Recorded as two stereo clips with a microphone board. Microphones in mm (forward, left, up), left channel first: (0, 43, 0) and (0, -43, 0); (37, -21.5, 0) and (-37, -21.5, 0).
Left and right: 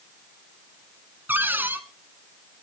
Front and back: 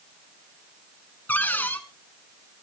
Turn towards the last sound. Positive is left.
turn(degrees=-45)